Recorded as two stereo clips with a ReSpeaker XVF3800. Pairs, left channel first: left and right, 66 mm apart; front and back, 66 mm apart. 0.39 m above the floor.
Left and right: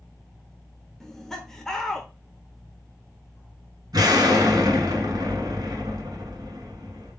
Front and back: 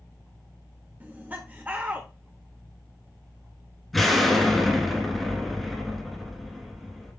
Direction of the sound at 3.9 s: 90° right.